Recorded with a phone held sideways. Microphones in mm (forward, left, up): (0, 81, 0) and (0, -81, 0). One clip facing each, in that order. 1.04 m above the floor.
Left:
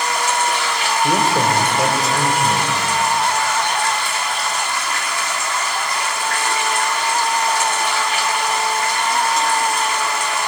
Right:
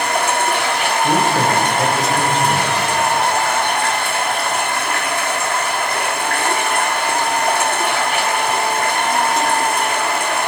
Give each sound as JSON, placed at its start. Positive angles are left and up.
{"t": 0.0, "sound": "running water", "side_deg": -55, "distance_m": 1.3}
{"t": 1.0, "sound": "a man speaking", "side_deg": 10, "distance_m": 4.5}